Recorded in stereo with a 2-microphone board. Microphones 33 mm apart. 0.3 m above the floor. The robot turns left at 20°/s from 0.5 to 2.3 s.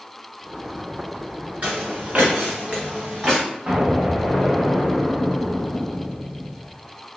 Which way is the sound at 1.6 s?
45° right (ahead or behind).